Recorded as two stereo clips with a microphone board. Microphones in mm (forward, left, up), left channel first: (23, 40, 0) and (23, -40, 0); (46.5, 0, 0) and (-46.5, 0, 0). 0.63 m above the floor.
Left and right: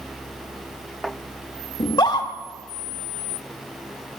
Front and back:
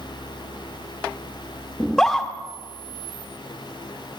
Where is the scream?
85° left, 1.2 m.